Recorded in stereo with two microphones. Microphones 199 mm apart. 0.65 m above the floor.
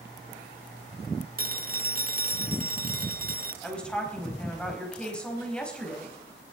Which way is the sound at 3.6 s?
5° left (ahead or behind).